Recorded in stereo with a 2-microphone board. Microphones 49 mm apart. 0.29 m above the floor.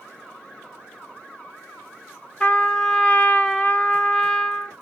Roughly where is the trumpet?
Left.